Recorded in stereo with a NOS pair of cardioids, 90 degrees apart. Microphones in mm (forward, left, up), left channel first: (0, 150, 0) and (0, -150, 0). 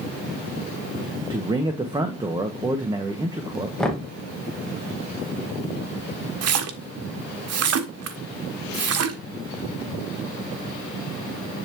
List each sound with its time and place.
1.3 s a man speaking: 15° right, 1.3 m
3.8 s knocking: straight ahead, 1.8 m
6.4 s a splash: 60° right, 1.2 m